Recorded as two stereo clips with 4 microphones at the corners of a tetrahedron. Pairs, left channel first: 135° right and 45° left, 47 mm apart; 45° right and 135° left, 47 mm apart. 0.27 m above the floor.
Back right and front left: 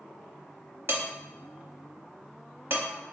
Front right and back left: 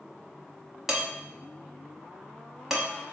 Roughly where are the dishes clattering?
Ahead left.